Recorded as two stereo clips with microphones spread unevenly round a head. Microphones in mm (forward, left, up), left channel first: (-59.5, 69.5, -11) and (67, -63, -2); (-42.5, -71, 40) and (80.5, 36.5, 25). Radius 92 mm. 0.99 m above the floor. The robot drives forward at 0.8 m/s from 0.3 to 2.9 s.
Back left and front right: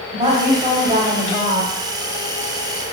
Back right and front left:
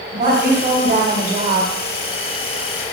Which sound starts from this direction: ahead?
A woman speaking, at 0.1 s.